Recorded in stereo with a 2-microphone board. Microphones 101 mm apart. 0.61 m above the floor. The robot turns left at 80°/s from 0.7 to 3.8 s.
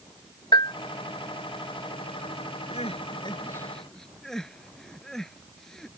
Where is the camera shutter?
No camera shutter in this recording.